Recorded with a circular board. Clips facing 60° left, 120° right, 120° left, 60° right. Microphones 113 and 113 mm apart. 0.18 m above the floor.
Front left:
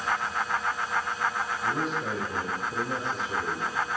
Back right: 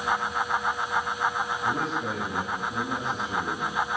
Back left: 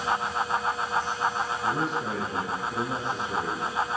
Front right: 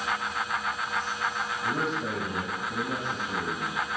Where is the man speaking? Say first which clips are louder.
Even, even; 75° right, 4 m; by 3.8 s 95° right, 2.5 m.